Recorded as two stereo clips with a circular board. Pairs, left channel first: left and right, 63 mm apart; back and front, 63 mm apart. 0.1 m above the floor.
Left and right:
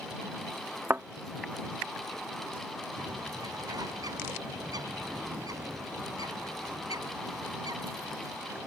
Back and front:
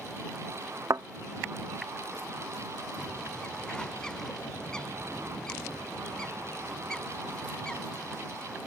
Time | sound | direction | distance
0.9 | a thud | 35° right | ?
3.0 | a bird | 100° right | ?